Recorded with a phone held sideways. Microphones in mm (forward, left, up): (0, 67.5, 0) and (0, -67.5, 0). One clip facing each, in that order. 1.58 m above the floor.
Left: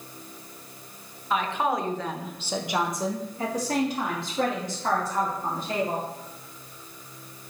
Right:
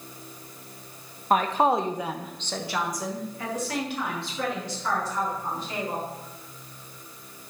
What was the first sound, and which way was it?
A woman speaking, 50° right (ahead or behind).